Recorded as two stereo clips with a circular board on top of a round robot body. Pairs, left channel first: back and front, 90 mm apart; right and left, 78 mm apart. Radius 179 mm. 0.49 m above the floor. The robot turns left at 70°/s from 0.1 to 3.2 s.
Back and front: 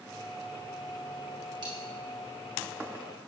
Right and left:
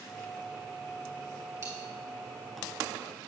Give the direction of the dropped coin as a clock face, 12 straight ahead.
11 o'clock.